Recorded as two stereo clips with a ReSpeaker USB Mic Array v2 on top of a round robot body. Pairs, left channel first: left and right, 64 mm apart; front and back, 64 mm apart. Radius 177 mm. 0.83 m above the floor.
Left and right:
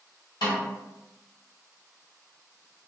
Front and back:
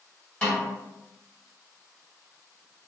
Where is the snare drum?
75° left, 1.7 m.